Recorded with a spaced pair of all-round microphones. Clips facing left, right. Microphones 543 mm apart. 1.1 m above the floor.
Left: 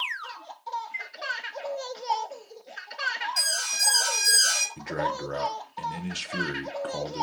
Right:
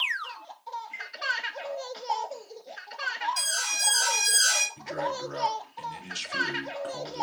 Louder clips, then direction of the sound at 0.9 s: Left 2 dB; 85° right.